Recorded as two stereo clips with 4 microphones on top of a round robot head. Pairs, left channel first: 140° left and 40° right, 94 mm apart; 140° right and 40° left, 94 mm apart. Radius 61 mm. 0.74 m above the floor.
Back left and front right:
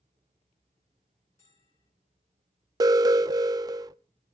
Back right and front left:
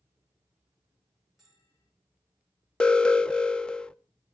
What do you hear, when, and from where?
1.4 s a bell: 130° left, 4.5 m
2.8 s an alarm: 60° right, 0.5 m